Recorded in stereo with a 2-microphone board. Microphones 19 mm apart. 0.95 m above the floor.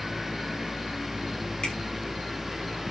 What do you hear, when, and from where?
1.6 s a finger snap: 50° left (ahead or behind), 8 m